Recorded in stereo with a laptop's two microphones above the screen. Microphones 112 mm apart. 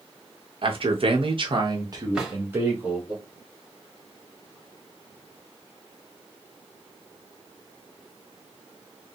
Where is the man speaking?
50° right (ahead or behind), 1.3 m; by 3.1 s 15° right (ahead or behind), 2 m.